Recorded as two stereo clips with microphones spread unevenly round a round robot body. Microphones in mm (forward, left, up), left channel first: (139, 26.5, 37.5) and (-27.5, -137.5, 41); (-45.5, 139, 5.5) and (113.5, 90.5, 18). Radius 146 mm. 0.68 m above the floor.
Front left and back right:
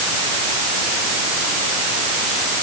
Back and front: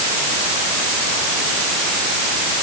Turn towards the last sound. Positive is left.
No sound to turn to.